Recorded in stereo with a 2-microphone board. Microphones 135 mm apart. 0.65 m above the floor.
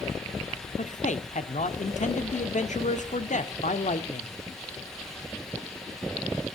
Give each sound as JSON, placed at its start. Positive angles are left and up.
{"t": 0.8, "sound": "a man speaking", "side_deg": 65, "distance_m": 1.3}